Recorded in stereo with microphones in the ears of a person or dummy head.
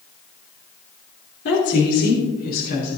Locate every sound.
1.4 s a woman speaking: 60° left (ahead or behind), 2.5 m; by 3.0 s 55° left (ahead or behind), 4 m